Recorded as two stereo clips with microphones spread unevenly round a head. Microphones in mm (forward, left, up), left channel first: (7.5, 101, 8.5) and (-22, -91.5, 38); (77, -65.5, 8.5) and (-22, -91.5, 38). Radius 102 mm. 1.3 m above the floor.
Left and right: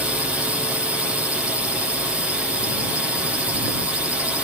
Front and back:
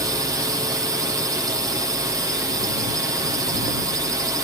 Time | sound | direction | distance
0.0 | a drone | 165° left | ?